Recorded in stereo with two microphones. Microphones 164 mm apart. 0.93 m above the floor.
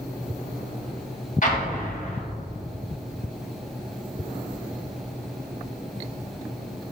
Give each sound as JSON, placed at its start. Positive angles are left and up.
{"t": 1.4, "sound": "an explosion", "side_deg": 50, "distance_m": 1.4}